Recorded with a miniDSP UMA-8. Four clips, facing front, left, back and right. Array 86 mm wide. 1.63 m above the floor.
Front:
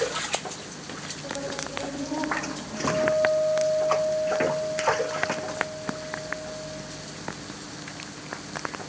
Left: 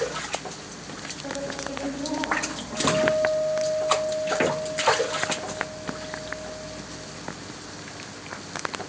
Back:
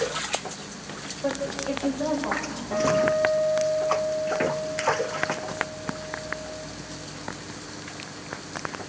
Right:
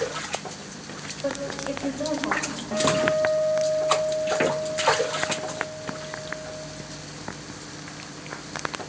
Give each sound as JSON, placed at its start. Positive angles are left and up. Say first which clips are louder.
{"t": 1.2, "sound": "a woman speaking", "louder": "right 4 dB, back 6 dB", "azimuth_deg": -135, "distance_m": 8.0}
{"t": 2.7, "sound": "a guitar", "louder": "even, back 2 dB", "azimuth_deg": -140, "distance_m": 6.0}